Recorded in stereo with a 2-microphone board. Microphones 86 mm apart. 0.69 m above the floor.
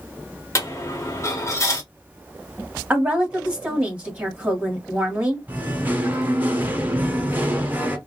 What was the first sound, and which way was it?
A dropped coin, 35° left (ahead or behind).